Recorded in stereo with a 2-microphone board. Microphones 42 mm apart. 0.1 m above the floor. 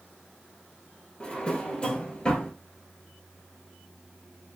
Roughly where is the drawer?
Left.